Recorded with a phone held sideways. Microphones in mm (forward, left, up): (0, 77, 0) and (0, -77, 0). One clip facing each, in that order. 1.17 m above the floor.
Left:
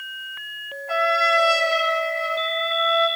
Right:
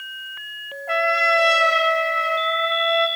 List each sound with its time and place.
0.9 s a trumpet: 65° right (ahead or behind), 4 m